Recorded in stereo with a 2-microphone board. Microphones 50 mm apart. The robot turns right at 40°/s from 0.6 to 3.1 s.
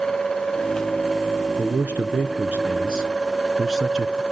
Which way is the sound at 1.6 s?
90° right.